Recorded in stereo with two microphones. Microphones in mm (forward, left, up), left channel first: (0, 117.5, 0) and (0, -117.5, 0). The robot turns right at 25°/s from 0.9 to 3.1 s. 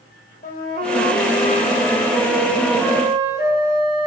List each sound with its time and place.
0.4 s a flute: 140° left, 3.5 m; by 4.1 s 165° right, 3.5 m